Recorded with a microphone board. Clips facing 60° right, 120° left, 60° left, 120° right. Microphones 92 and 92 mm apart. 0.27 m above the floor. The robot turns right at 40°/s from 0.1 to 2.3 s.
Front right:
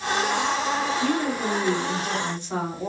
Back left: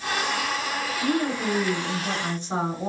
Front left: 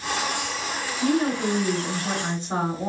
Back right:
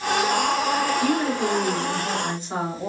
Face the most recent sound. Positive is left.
turn(degrees=85)